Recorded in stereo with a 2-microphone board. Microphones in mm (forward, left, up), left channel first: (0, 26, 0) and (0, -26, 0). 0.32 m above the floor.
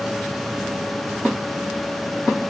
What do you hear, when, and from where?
Only background noise.